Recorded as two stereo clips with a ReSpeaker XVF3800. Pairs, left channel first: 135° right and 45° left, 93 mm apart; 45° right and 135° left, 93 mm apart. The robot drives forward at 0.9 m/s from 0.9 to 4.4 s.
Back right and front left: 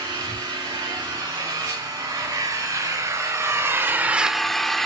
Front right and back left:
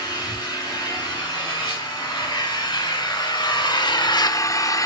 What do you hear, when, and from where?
0.0 s an engine running: 5° right, 3.5 m; by 4.9 s 50° right, 0.5 m